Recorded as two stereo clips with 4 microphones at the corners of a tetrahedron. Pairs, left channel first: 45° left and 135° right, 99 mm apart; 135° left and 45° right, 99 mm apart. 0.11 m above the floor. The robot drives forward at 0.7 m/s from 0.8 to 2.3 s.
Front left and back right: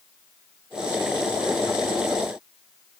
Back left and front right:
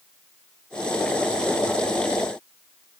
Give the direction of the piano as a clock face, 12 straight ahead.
I don't hear a piano.